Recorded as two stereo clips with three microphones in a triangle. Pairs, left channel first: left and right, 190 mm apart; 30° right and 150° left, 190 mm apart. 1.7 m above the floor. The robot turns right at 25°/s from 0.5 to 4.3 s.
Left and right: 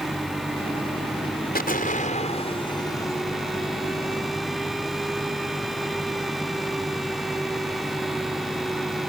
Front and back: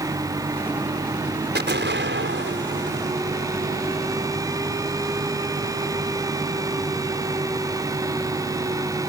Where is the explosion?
125° left; by 3.2 s 170° left.